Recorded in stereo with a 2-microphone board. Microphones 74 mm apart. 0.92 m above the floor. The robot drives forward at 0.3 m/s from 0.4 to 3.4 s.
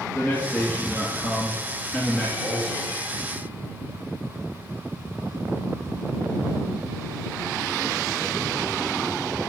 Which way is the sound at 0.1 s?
25° left (ahead or behind).